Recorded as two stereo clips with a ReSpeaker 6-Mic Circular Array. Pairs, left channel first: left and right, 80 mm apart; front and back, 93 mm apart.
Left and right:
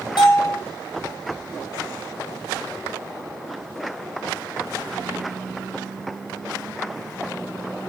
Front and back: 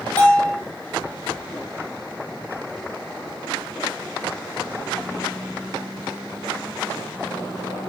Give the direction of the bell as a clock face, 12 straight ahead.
10 o'clock.